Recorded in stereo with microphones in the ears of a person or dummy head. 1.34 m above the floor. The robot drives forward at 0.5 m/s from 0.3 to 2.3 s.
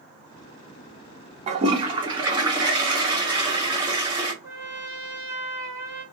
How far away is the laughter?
I don't hear laughter.